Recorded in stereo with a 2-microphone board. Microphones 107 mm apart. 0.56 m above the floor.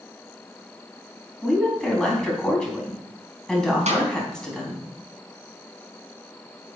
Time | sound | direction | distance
1.4 | a woman speaking | 5° left (ahead or behind) | 4 m
3.9 | a snare drum | 80° right | 4.5 m